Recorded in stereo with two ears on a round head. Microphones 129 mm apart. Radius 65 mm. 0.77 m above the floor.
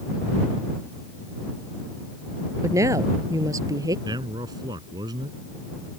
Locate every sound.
2.6 s a woman speaking: 20° right (ahead or behind); by 4.0 s 25° right (ahead or behind)
4.0 s a man speaking: 30° right (ahead or behind)